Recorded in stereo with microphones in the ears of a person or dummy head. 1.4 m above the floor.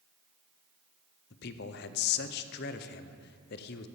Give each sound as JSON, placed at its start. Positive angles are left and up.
{"t": 1.3, "sound": "a man speaking", "side_deg": 55, "distance_m": 0.7}